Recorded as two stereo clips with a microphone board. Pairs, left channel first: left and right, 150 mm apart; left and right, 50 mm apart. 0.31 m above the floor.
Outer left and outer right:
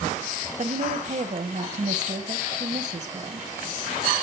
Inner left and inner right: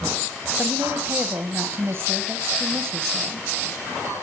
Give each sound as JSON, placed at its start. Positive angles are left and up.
{"t": 0.6, "sound": "a woman speaking", "side_deg": -50, "distance_m": 1.6}